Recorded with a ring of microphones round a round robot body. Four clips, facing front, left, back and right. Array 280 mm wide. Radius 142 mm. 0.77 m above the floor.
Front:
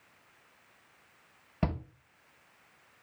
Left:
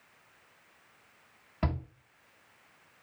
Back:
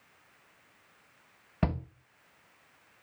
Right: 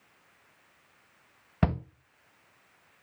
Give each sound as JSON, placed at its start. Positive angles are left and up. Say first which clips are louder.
{"t": 1.6, "sound": "a shout", "louder": "right 5 dB, back 1 dB", "azimuth_deg": -95, "distance_m": 1.2}